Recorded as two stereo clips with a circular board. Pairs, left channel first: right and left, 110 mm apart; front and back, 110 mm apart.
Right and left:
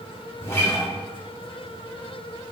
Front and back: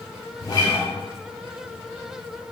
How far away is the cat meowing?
No cat meowing in this recording.